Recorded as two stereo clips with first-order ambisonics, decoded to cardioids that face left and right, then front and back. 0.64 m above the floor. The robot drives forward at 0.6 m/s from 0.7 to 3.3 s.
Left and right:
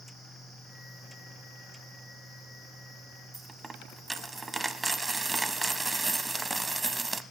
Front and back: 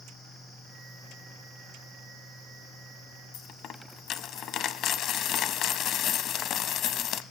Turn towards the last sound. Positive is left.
turn(degrees=-15)